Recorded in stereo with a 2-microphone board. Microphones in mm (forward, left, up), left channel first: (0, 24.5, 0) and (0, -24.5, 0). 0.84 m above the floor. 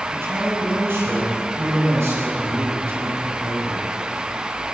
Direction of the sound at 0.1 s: 55° right (ahead or behind).